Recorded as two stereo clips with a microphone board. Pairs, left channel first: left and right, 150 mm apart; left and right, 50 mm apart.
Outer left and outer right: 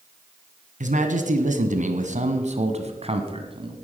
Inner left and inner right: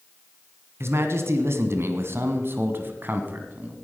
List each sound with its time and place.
0.8 s a man speaking: 55° right (ahead or behind), 2 m; by 3.8 s 35° right (ahead or behind), 1.9 m